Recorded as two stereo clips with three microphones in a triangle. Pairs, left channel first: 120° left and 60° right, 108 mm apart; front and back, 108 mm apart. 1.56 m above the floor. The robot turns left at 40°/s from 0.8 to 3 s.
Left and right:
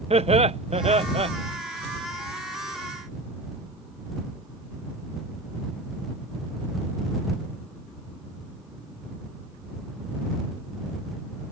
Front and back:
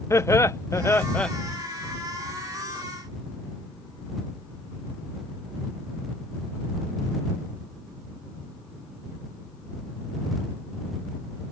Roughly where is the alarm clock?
I don't hear an alarm clock.